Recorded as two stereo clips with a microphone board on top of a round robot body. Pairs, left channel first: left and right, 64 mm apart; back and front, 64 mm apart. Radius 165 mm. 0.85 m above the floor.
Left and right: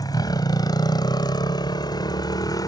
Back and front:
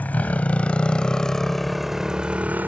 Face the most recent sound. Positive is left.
turn(degrees=60)